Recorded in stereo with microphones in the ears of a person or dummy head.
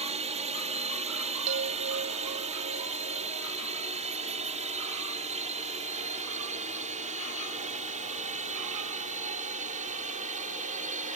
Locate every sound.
0.0 s a drone: 30° right (ahead or behind); by 11.2 s 40° right (ahead or behind)
1.5 s a chime: 65° right (ahead or behind)